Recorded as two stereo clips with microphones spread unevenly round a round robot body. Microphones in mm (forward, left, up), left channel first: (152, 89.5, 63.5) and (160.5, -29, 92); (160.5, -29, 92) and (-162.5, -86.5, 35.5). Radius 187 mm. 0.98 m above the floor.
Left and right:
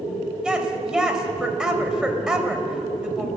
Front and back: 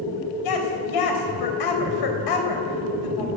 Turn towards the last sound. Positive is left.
turn(degrees=0)